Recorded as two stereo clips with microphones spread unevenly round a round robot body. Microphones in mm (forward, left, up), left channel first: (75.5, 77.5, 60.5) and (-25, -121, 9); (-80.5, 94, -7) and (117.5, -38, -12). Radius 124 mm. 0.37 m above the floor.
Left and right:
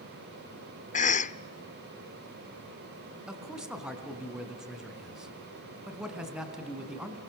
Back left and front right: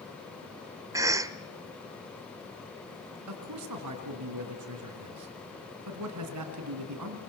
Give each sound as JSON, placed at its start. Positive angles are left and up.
{"t": 0.9, "sound": "a cough", "azimuth_deg": 20, "distance_m": 1.0}
{"t": 3.3, "sound": "a man speaking", "azimuth_deg": -35, "distance_m": 4.0}